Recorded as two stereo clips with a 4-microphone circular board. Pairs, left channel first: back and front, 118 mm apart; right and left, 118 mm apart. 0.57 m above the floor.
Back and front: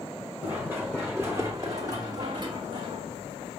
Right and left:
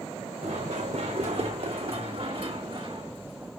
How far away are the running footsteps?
About 2.5 m.